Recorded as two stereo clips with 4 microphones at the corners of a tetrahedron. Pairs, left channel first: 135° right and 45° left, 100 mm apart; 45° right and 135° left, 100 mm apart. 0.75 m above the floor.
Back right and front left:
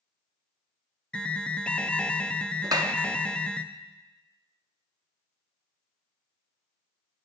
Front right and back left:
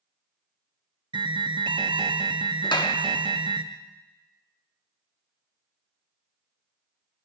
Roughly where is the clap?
Ahead.